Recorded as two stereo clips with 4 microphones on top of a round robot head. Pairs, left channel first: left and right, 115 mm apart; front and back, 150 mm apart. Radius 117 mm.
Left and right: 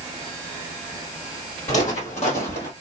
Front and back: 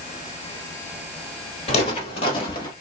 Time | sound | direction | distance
1.7 | footsteps | 35° left | 2 m